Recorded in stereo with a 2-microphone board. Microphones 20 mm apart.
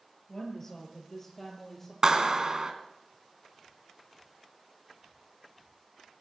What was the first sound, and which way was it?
A woman speaking, 20° left (ahead or behind).